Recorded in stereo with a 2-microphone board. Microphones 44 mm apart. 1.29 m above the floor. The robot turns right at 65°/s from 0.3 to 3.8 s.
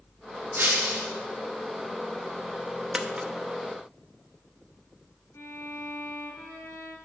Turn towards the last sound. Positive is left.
turn(degrees=65)  # may be behind; listen again after turning